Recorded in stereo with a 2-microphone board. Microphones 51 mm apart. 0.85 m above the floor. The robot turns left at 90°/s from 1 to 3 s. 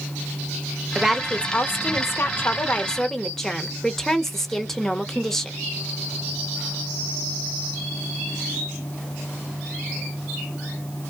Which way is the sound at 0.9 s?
170° right.